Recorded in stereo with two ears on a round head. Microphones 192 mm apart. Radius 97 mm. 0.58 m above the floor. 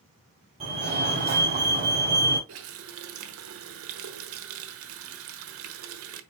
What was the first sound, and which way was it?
A fire alarm, 30° right (ahead or behind).